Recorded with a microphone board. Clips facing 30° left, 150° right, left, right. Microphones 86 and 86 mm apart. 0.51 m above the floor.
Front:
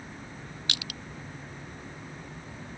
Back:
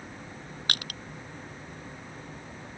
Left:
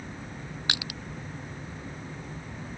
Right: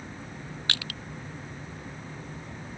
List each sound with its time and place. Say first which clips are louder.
0.7 s crushing: back 5 dB, left 1 dB; 165° left